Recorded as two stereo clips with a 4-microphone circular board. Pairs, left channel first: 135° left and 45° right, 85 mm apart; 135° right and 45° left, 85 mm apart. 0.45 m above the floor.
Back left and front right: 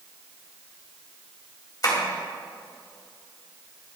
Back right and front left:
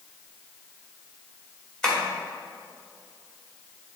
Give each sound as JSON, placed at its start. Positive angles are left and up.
{"t": 1.8, "sound": "tapping", "azimuth_deg": 145, "distance_m": 1.8}